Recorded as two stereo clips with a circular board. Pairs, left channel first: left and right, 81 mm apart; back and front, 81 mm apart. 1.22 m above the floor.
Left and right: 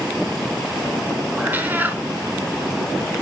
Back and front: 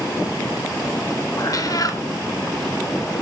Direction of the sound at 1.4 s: 150° right.